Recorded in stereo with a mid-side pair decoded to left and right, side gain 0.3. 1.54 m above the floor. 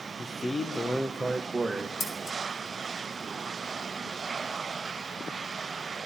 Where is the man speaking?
50° left, 1.4 m; by 1.9 s 30° right, 1.7 m.